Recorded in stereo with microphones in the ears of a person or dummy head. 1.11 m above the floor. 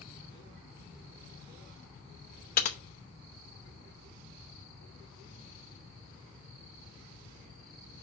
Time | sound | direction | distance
2.6 | typing on a keyboard | 45° left (ahead or behind) | 0.8 m